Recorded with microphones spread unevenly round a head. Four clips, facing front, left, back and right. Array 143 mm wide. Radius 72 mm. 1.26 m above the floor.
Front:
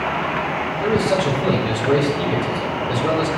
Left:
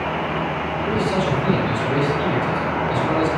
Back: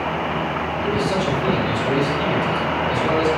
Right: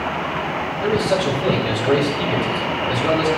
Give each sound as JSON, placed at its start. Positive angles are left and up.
{"t": 0.8, "sound": "a man speaking", "azimuth_deg": -40, "distance_m": 5.0}